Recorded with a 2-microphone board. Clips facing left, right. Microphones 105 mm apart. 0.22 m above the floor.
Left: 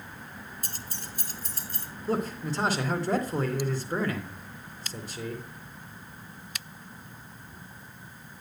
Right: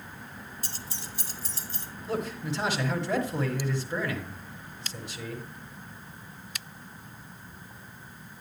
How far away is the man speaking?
About 3 m.